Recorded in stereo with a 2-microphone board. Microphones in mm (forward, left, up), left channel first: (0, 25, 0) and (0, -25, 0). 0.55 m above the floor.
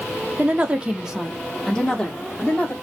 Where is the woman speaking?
30° right (ahead or behind), 0.8 m; by 2.7 s 30° left (ahead or behind), 1.1 m.